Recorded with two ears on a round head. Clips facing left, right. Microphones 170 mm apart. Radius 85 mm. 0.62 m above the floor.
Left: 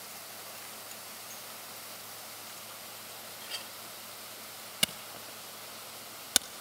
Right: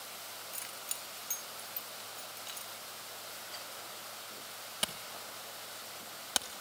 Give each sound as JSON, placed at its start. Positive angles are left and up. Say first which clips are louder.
{"t": 0.5, "sound": "keys jangling", "louder": "left 1 dB", "side_deg": -70, "distance_m": 2.5}
{"t": 3.4, "sound": "a clink", "louder": "left 1 dB", "side_deg": 75, "distance_m": 1.3}
{"t": 4.8, "sound": "a camera shutter", "louder": "left 2 dB", "side_deg": 25, "distance_m": 1.1}